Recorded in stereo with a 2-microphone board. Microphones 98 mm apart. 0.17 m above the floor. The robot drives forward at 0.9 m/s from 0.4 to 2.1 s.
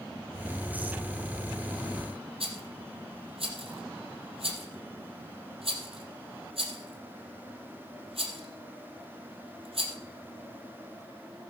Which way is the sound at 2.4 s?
75° right (ahead or behind).